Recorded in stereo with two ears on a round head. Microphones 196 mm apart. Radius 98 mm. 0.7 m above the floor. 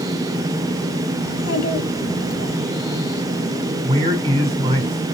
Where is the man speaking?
30° right (ahead or behind), 2.0 m.